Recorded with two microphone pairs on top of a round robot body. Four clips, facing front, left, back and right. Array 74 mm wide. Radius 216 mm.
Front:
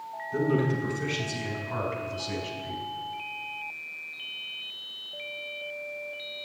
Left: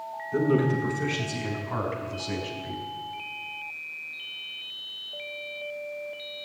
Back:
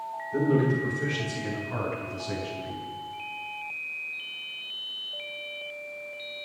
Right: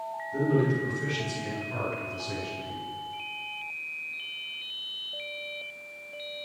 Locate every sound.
0.3 s a man speaking: 95° left, 6.5 m; by 2.8 s 100° left, 5 m